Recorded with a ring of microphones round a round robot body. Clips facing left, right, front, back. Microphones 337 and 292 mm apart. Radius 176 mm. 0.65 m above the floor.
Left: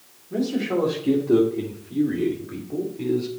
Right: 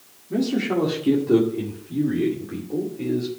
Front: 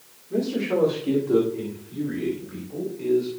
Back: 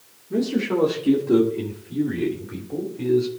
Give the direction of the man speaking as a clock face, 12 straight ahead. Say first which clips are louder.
Right 1 dB, back 2 dB; 4 o'clock.